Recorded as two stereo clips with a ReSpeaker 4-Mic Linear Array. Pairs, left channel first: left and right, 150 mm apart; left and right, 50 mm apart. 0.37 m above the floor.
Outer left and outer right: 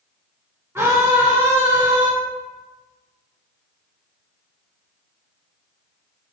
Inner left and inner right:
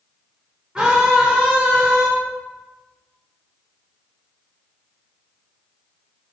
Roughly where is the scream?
Centre.